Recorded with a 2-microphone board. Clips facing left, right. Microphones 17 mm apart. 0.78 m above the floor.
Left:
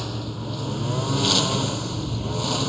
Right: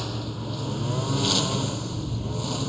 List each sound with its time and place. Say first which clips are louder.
0.0 s a lawn mower: left 1 dB; 5° left (ahead or behind); by 2.7 s 30° left (ahead or behind)